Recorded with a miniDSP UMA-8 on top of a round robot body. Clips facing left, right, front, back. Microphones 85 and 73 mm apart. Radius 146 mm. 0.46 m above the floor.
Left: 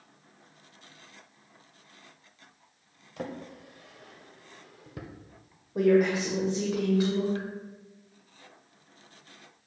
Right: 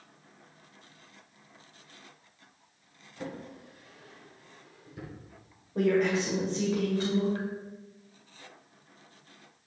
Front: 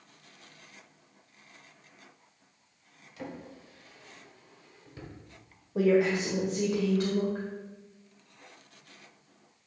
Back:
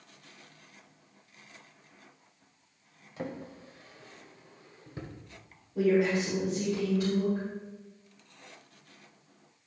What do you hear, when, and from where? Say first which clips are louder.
3.2 s a drawer: left 2 dB, back 3 dB; 120° left, 1.1 m
5.8 s a woman speaking: left 3 dB, front 1 dB; 15° left, 2 m